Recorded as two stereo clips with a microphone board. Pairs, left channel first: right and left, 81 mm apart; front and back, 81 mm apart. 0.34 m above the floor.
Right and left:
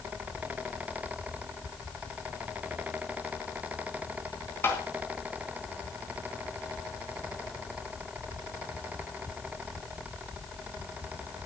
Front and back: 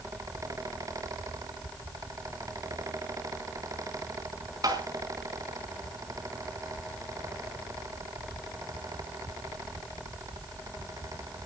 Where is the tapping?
150° right, 4 m.